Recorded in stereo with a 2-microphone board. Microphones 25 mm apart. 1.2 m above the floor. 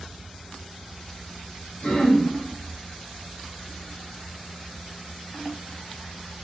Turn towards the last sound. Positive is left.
turn(degrees=50)  # may be behind; listen again after turning